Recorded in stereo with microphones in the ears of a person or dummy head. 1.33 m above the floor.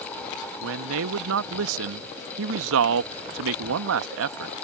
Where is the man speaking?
75° right (ahead or behind).